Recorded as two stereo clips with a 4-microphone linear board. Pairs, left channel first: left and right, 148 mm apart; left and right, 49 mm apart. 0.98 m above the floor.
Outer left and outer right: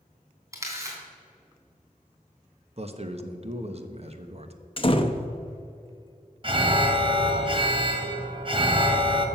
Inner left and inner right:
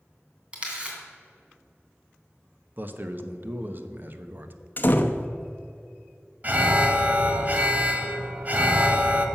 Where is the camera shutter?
20° right (ahead or behind), 2.5 m.